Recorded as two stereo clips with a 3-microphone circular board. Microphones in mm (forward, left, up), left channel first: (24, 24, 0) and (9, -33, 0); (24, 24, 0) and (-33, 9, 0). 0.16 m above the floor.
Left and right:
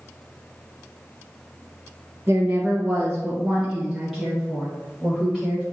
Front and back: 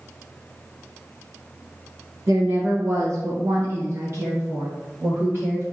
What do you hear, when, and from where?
2.3 s a woman speaking: 155° right, 2 m; by 5.6 s 150° left, 3.5 m